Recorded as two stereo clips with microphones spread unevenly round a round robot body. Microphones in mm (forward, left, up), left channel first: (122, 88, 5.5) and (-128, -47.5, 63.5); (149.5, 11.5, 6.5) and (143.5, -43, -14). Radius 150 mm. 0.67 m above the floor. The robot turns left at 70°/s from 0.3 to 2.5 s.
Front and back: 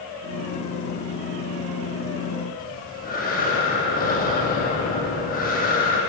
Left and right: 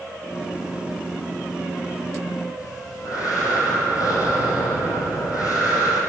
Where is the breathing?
90° left, 7 m.